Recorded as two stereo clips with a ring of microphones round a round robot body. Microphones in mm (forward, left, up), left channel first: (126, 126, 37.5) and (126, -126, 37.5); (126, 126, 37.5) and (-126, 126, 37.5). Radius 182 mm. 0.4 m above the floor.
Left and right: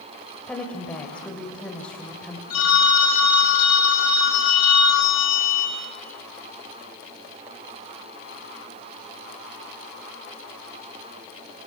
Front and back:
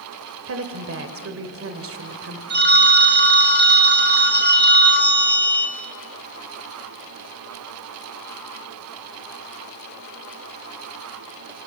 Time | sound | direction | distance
0.5 | a woman speaking | 175° left | 1.7 m
2.5 | a phone ringing | 130° left | 3 m